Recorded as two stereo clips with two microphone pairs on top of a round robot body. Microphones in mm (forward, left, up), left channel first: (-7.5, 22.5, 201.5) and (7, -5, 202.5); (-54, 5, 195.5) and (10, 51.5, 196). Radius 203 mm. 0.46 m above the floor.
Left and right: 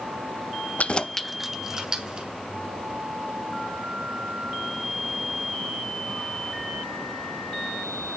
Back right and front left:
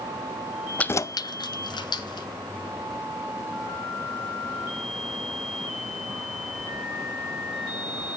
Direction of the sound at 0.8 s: 145° left.